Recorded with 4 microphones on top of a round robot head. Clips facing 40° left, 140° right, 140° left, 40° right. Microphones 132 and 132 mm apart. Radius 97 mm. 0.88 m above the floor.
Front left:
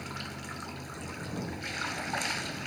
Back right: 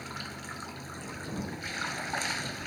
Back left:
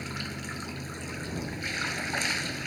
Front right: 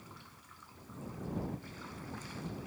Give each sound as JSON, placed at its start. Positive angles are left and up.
{"t": 0.0, "sound": "running water", "azimuth_deg": 125}